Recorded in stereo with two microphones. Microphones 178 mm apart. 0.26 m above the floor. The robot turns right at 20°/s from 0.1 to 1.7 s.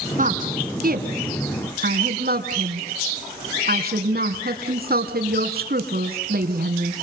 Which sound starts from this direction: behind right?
A woman speaking, at 0.2 s.